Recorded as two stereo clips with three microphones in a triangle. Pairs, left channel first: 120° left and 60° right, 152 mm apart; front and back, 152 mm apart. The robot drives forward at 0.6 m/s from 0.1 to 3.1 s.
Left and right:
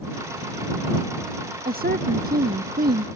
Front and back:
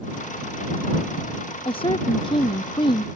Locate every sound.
1.6 s a woman speaking: 55° right; by 3.1 s 60° right